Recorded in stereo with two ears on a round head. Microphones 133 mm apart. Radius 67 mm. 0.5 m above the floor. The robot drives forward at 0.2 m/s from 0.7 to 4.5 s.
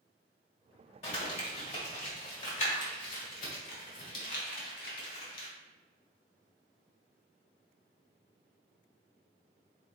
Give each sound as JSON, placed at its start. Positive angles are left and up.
{"t": 1.0, "sound": "crumpling", "side_deg": 45, "distance_m": 1.8}